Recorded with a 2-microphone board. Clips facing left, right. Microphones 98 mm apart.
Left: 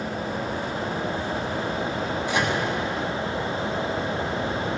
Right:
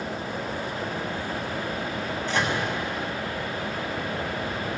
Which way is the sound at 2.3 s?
10° left (ahead or behind).